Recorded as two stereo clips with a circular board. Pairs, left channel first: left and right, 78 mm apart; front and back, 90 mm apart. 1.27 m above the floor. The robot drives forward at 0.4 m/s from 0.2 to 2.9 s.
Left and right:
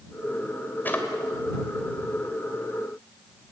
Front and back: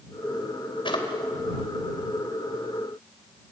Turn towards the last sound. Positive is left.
turn(degrees=35)